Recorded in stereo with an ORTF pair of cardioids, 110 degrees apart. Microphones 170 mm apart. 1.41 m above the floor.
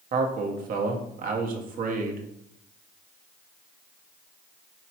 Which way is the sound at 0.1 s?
55° right.